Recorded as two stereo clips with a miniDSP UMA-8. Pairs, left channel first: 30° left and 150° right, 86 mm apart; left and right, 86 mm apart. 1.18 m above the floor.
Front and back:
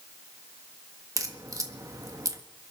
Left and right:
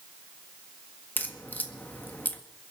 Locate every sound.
1.2 s a crack: 160° left, 1.5 m